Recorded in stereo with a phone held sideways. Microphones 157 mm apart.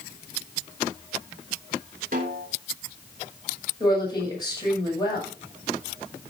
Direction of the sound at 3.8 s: 25° left (ahead or behind).